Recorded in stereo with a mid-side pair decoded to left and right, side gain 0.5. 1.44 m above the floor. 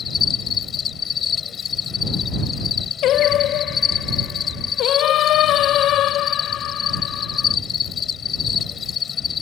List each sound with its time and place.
0.0 s an insect: 45° left
3.0 s singing: 70° left